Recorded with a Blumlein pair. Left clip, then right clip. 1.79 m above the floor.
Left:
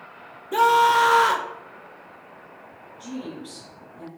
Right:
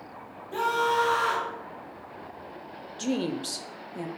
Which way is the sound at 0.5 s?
30° left.